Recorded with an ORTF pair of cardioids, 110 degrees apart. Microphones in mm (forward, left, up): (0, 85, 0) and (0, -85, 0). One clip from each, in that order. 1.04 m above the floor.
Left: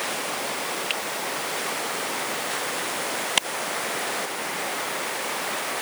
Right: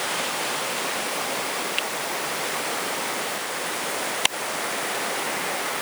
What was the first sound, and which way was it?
Only background noise.